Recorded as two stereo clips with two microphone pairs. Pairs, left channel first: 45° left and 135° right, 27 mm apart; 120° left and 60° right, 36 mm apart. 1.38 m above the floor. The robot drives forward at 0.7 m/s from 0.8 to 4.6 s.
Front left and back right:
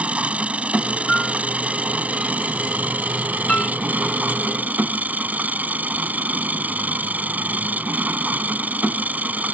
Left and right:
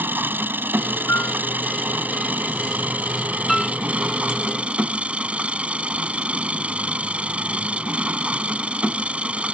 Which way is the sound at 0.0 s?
90° right.